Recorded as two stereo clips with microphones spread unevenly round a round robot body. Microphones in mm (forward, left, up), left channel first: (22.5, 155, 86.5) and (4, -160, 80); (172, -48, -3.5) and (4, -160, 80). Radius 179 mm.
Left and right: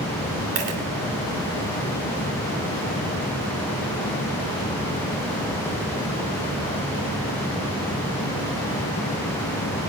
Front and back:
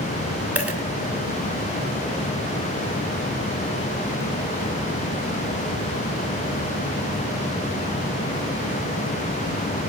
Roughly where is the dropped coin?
Ahead right.